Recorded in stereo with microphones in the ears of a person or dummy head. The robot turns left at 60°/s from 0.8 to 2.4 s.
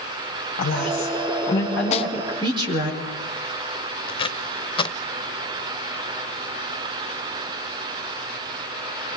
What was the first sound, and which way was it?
A woman speaking, 65° left.